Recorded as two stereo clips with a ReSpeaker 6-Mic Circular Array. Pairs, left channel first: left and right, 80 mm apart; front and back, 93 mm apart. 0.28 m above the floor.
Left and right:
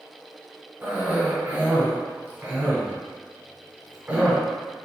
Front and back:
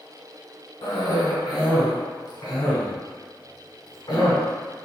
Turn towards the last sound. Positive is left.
turn(degrees=-20)